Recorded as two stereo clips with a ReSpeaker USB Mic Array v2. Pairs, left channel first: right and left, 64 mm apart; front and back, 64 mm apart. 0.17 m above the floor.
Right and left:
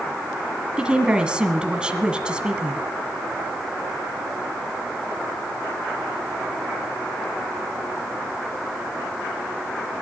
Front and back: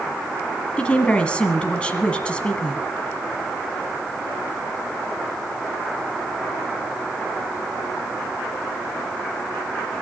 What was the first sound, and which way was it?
A woman speaking, 40° left.